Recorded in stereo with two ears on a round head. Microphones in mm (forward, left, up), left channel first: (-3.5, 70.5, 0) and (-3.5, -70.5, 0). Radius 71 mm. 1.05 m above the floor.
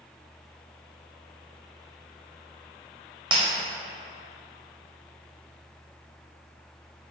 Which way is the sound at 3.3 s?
35° right (ahead or behind).